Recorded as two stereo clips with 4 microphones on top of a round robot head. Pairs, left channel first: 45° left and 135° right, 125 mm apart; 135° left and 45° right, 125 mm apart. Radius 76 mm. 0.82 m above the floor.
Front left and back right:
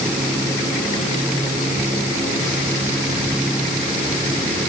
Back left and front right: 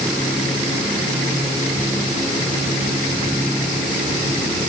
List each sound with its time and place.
Only background noise.